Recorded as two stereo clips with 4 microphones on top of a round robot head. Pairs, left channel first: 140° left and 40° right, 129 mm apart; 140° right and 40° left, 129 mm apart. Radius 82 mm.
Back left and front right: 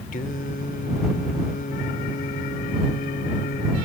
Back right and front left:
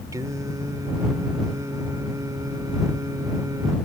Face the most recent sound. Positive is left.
turn(degrees=105)